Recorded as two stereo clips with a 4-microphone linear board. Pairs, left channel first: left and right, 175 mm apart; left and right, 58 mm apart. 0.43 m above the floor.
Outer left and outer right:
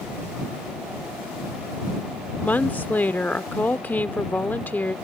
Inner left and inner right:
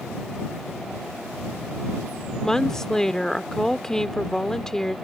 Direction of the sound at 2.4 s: 10° left (ahead or behind).